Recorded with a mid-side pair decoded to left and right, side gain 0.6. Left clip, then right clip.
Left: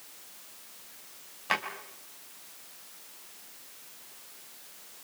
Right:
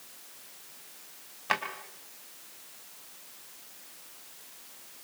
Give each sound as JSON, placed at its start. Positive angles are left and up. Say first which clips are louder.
{"t": 1.5, "sound": "a drawer", "louder": "even", "azimuth_deg": -10, "distance_m": 4.0}